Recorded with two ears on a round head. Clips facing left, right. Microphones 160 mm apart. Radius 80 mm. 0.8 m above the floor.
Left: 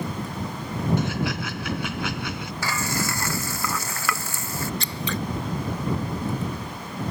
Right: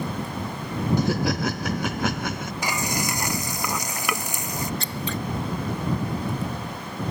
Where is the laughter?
35° right (ahead or behind); by 2.5 s 40° right (ahead or behind).